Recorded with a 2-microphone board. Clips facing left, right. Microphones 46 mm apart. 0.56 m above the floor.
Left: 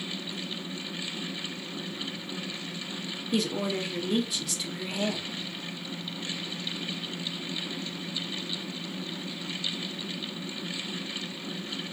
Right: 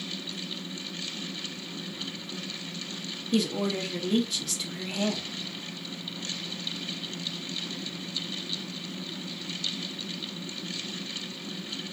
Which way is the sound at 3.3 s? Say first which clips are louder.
Right 1 dB; 5° left (ahead or behind).